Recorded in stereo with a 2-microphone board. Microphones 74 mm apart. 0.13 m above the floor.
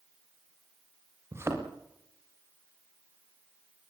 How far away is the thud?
About 6.5 m.